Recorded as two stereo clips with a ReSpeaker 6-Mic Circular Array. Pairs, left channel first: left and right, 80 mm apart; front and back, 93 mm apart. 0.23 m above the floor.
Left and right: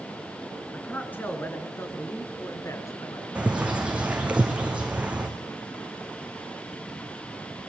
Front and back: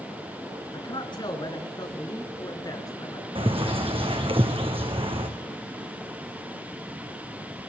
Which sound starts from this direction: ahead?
A man speaking, at 0.7 s.